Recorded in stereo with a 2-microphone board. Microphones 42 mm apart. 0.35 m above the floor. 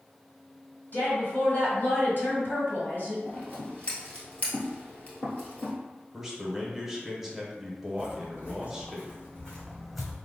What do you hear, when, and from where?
0.9 s a woman speaking: 55° left (ahead or behind), 1.7 m
3.3 s scissors: 35° left (ahead or behind), 1.4 m
6.1 s a man speaking: 10° right (ahead or behind), 0.9 m
8.0 s footsteps: 55° left (ahead or behind), 1.9 m; by 10.1 s 10° right (ahead or behind), 0.9 m